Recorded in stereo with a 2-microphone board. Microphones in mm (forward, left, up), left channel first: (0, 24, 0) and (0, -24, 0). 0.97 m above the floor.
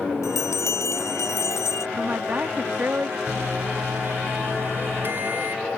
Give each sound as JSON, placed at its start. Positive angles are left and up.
{"t": 0.2, "sound": "a bell", "side_deg": 85}
{"t": 2.0, "sound": "a woman speaking", "side_deg": -40}
{"t": 3.3, "sound": "a microwave", "side_deg": -45}